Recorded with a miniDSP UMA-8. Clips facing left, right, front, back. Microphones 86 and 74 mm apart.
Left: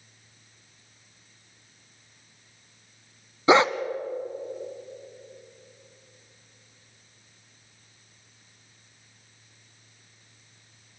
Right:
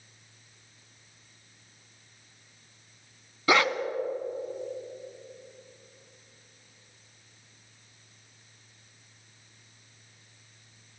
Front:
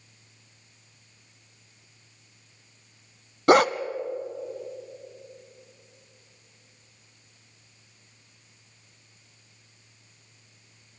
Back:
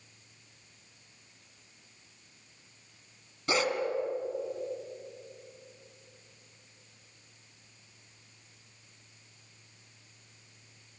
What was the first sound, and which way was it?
A dog barking, 25° left.